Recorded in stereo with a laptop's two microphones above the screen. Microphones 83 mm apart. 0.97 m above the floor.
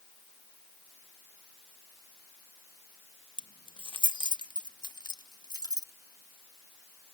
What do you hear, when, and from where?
3.4 s keys jangling: 75° left (ahead or behind); by 5.9 s 50° left (ahead or behind)